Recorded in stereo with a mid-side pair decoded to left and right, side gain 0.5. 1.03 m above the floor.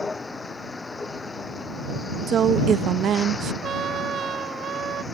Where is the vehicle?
25° left.